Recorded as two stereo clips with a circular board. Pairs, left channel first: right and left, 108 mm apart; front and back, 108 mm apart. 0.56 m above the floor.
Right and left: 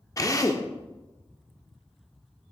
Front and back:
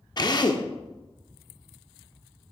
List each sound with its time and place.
0.2 s a drill: 40° right, 0.6 m